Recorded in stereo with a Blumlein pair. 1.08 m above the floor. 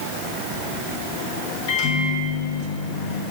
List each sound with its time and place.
1.7 s a microwave: 45° left, 0.9 m